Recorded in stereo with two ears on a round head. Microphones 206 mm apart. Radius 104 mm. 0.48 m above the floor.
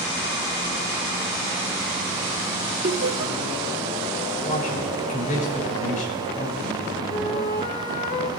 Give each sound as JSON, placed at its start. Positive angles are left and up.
{"t": 2.8, "sound": "laughter", "side_deg": -50, "distance_m": 1.8}
{"t": 4.4, "sound": "a man speaking", "side_deg": 35, "distance_m": 4.0}
{"t": 7.1, "sound": "a flute", "side_deg": 35, "distance_m": 1.3}